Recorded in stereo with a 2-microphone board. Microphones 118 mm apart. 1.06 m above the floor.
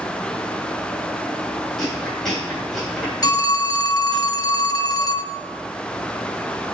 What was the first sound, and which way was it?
Chewing, 5° left (ahead or behind).